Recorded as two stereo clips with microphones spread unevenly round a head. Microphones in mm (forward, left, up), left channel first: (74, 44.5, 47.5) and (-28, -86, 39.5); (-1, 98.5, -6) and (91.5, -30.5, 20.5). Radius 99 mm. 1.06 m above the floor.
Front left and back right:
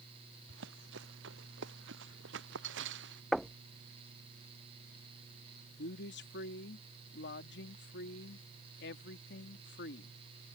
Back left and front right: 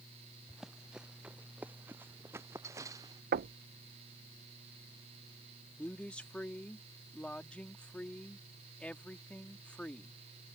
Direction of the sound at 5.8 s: 45° left.